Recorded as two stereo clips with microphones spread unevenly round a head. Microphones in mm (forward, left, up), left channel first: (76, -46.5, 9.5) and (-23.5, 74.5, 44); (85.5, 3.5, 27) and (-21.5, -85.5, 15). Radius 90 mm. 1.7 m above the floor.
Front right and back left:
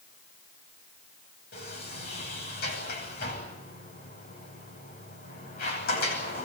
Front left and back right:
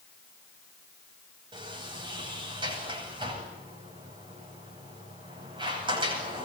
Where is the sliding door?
85° right, 10 m.